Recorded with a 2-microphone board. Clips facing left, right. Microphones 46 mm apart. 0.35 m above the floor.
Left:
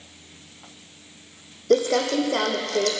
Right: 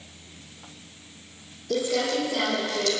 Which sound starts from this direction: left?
Crumpling, at 1.7 s.